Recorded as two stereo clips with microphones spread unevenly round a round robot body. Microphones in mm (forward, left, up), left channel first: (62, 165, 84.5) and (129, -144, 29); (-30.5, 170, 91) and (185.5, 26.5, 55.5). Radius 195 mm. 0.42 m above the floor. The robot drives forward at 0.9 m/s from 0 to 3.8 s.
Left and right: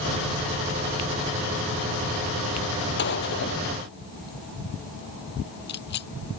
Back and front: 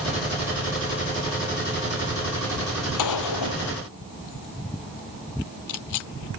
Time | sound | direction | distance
3.0 | a gunshot | 165° left | ?